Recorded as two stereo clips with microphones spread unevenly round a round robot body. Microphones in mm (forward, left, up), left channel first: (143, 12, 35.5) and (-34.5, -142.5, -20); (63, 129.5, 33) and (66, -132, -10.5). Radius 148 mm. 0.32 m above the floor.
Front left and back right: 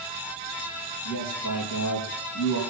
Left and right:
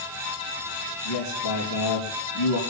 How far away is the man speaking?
About 7.5 m.